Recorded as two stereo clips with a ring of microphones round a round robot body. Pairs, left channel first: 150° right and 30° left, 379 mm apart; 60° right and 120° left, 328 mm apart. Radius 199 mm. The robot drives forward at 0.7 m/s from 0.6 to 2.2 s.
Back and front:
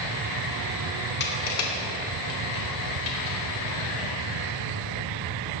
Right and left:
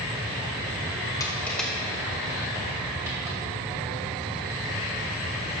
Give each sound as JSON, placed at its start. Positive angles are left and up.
{"t": 1.2, "sound": "crushing", "azimuth_deg": -130, "distance_m": 1.0}